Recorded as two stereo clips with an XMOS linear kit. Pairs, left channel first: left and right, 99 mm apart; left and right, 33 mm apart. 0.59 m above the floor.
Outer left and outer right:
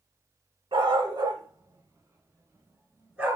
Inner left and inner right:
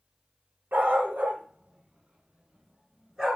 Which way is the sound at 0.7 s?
65° right (ahead or behind).